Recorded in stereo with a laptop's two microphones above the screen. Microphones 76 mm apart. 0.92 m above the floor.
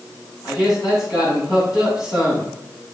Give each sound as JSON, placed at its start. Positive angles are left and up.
{"t": 0.4, "sound": "a man speaking", "side_deg": 50, "distance_m": 7.0}